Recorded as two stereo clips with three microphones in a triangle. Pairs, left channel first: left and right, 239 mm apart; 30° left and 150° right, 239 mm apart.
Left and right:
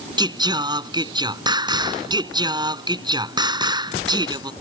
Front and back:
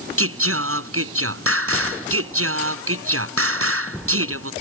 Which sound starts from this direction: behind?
Singing, at 0.2 s.